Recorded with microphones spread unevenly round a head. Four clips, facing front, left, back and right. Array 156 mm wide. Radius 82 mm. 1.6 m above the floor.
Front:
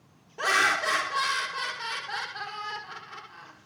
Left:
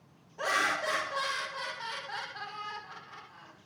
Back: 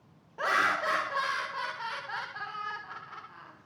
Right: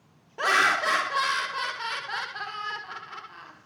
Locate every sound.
0.4 s laughter: 75° right, 0.7 m